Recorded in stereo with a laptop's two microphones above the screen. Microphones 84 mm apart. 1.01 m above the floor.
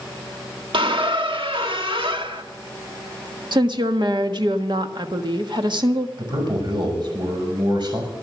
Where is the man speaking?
65° right (ahead or behind), 5.5 m.